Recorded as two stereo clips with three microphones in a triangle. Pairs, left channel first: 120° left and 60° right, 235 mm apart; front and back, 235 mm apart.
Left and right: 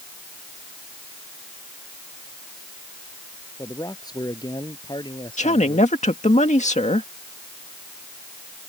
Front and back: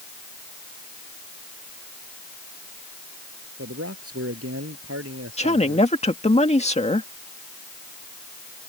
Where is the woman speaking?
60° left.